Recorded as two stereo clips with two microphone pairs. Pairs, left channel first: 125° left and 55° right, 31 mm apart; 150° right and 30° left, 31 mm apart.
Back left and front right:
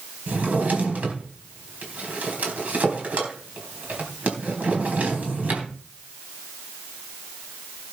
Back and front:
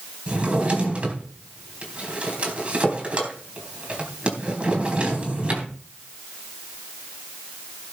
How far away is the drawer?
About 4 m.